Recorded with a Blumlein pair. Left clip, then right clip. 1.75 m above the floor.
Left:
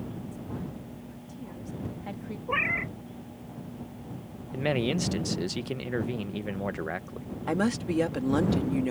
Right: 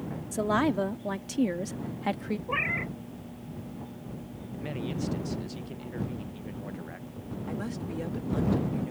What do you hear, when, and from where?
0.3 s a woman speaking: 40° right; by 2.4 s 65° right
2.5 s a cat meowing: 10° left
4.5 s a man speaking: 30° left
7.5 s a woman speaking: 30° left